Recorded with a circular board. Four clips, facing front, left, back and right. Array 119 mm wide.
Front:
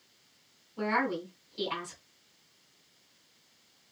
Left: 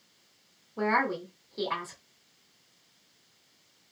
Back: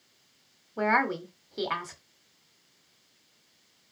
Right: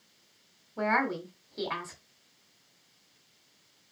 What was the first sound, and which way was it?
A woman speaking, 175° right.